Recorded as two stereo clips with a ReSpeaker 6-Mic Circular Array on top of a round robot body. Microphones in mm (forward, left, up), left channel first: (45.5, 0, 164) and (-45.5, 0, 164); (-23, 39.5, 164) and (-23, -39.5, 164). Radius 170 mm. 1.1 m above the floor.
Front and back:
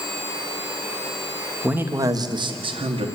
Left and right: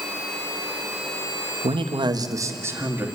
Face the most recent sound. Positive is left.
turn(degrees=-160)